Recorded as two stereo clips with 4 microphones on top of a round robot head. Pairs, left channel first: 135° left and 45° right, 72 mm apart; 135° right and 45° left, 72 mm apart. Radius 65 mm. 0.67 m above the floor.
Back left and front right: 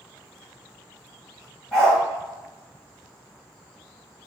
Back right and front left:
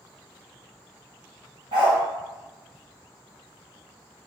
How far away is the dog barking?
About 1.8 m.